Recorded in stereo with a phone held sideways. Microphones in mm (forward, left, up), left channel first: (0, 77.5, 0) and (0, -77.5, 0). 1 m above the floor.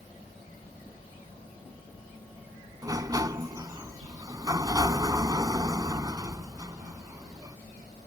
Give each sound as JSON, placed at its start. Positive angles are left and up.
{"t": 2.8, "sound": "a sliding door", "side_deg": -25}